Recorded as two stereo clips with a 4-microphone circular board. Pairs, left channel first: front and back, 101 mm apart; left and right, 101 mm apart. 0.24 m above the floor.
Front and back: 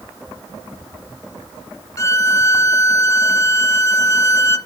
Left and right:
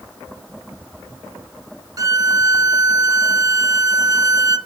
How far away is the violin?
About 0.7 m.